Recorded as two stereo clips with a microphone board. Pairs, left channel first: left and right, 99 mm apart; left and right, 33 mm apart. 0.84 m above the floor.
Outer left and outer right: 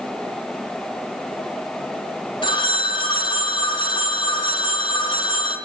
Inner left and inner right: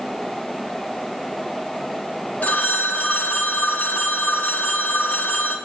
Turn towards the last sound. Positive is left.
turn(degrees=55)  # may be behind; listen again after turning